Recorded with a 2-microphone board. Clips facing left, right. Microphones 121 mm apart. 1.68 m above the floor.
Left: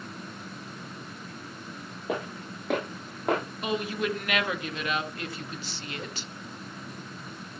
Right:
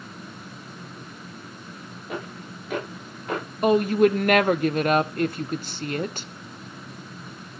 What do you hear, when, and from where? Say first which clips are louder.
2.1 s footsteps: left 2 dB; 80° left, 8 m; by 3.4 s 75° left (ahead or behind), 9 m
3.6 s a woman speaking: right 15 dB; 50° right (ahead or behind), 1.0 m